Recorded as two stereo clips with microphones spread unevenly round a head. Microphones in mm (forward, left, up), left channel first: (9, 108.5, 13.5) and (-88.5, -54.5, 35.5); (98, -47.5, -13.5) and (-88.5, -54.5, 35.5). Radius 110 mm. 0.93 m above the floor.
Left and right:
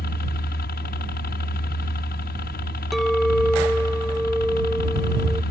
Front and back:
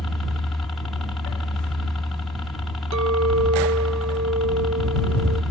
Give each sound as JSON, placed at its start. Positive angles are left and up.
{"t": 0.0, "sound": "a helicopter", "azimuth_deg": 80}
{"t": 2.9, "sound": "a clink", "azimuth_deg": 150}